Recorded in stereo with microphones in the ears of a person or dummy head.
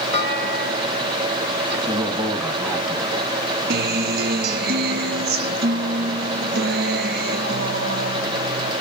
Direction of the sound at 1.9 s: 15° right (ahead or behind).